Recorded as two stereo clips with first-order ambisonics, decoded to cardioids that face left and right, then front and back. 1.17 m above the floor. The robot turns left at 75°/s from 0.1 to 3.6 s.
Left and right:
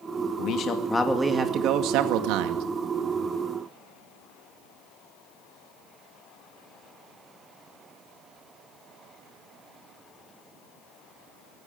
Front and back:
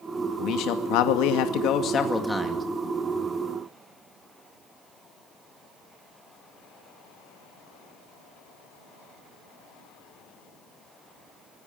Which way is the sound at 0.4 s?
55° left.